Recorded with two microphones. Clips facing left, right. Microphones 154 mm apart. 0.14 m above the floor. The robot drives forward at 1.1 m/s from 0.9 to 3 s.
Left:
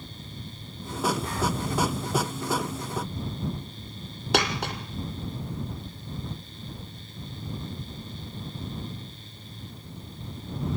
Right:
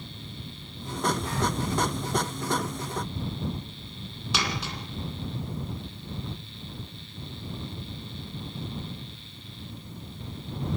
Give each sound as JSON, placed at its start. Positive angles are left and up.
{"t": 4.3, "sound": "a dropped coin", "side_deg": 60, "distance_m": 2.5}